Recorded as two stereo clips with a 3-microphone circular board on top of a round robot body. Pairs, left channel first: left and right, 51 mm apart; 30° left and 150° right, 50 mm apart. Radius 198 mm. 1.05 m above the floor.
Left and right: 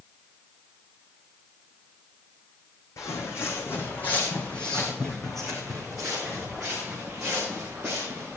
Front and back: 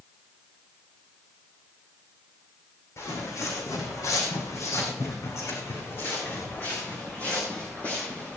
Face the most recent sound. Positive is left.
turn(degrees=-25)